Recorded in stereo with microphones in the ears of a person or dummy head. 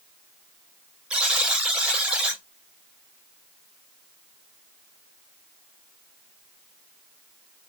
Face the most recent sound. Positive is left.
turn(degrees=-5)  # may be behind; listen again after turning